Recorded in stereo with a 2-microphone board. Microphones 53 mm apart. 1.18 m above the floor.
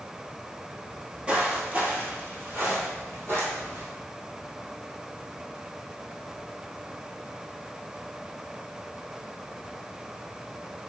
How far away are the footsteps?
About 1.2 m.